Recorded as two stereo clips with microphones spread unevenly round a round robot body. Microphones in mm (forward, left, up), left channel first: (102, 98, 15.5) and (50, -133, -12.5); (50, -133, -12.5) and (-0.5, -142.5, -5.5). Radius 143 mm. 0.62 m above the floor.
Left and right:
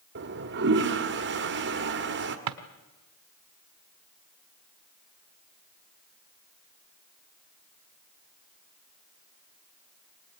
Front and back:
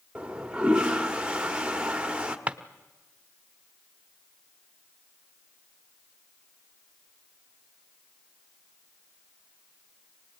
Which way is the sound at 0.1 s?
95° right.